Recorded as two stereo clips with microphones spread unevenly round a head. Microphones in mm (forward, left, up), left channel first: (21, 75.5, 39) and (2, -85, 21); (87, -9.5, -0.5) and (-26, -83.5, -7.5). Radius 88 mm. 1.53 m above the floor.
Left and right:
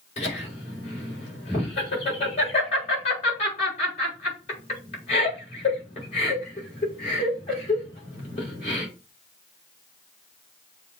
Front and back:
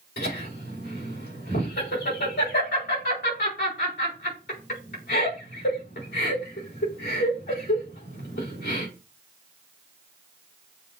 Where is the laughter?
30° left, 3.5 m.